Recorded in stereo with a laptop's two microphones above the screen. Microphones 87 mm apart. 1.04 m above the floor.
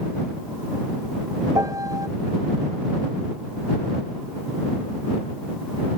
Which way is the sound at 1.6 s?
45° right (ahead or behind).